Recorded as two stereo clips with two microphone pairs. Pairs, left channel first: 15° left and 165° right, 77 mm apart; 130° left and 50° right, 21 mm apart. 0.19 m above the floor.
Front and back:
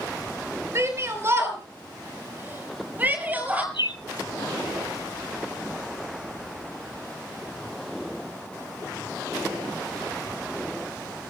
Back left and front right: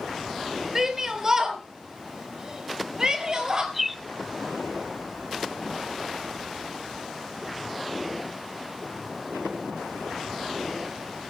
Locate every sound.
0.8 s a shout: 115° right, 4.5 m; by 3.6 s 95° right, 5 m
3.7 s a bird: 30° left, 1.0 m